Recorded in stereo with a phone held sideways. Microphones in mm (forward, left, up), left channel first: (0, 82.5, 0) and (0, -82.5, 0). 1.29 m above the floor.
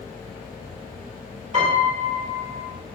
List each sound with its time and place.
1.5 s a piano: 50° right (ahead or behind), 4 m